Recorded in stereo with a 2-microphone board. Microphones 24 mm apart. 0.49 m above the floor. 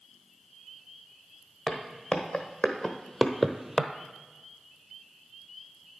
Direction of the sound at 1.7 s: 45° left (ahead or behind).